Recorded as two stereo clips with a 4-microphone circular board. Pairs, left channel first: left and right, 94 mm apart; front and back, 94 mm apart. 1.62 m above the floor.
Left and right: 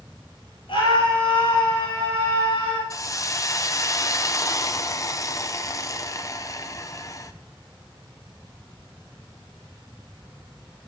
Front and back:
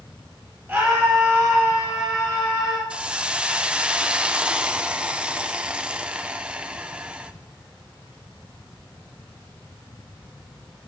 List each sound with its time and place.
0.7 s a scream: 105° left, 6.5 m; by 2.8 s 100° left, 6 m
2.9 s a hiss: 110° left, 0.5 m